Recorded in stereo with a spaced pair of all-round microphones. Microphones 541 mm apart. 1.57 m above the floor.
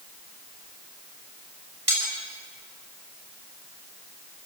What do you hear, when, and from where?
1.9 s cutlery clinking: 80° right, 6.5 m